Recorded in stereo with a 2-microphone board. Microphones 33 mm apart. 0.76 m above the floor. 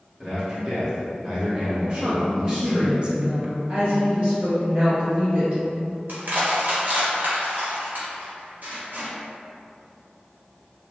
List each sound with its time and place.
0.2 s a man speaking: 20° right (ahead or behind), 1.7 m
1.9 s a woman speaking: 30° right (ahead or behind), 0.6 m
3.7 s a woman speaking: 30° right (ahead or behind), 1.7 m
6.1 s crushing: 60° right (ahead or behind), 1.1 m